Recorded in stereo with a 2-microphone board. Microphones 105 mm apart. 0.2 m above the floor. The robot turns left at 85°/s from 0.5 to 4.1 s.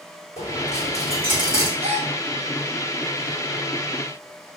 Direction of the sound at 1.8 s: 65° right (ahead or behind).